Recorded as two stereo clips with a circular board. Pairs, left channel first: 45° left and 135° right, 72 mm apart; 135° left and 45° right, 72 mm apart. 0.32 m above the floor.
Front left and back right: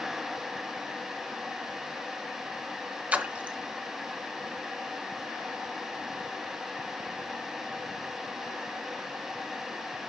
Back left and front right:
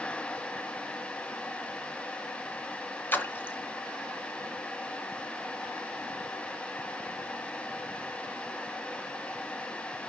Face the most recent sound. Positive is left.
turn(degrees=175)